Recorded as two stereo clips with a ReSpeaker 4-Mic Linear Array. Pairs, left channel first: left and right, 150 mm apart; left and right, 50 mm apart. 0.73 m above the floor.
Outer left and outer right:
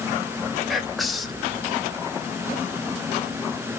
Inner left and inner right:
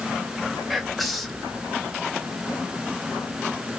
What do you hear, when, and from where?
0.7 s whispering: centre (ahead or behind), 0.7 m